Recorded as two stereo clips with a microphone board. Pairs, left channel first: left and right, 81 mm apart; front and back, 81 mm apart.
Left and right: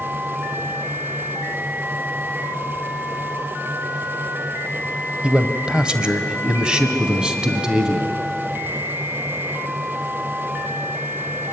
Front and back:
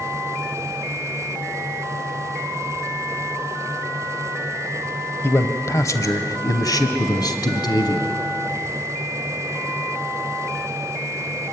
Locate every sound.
5.2 s a man speaking: 25° right, 1.2 m; by 8.1 s 10° right, 2.5 m